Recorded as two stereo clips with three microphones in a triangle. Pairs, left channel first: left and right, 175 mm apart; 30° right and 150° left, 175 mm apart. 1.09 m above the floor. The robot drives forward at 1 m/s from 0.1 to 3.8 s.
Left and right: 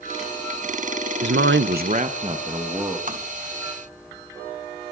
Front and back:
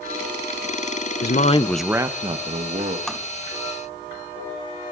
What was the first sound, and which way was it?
A man speaking, 60° right.